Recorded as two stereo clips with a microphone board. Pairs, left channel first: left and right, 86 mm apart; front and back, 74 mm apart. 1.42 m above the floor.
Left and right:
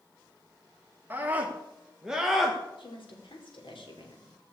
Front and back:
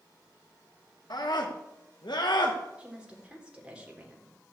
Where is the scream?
25° right, 1.8 m; by 2.6 s 5° left, 1.4 m.